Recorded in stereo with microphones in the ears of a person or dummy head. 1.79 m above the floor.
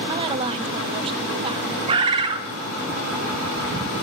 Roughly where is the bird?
Right.